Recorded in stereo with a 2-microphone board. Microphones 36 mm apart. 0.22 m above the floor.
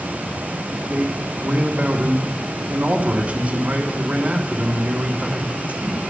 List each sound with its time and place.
0.9 s a man speaking: 45° right (ahead or behind), 2 m